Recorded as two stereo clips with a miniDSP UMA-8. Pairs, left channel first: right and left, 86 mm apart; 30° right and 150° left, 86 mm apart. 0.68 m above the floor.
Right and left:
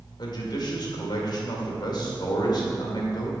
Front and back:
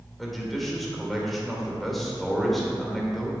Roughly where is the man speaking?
Behind right.